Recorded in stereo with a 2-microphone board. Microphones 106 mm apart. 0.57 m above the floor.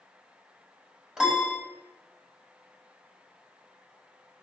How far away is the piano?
About 1.5 m.